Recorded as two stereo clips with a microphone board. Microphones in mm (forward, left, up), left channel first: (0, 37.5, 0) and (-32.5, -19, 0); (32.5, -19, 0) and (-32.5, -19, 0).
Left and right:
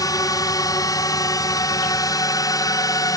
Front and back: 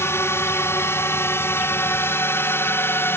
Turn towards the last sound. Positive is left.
turn(degrees=50)